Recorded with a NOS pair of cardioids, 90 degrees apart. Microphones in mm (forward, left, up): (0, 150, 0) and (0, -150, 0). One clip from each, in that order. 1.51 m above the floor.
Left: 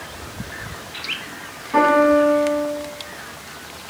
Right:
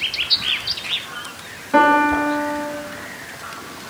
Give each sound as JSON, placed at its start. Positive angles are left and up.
{"t": 1.7, "sound": "a piano", "azimuth_deg": -30, "distance_m": 0.7}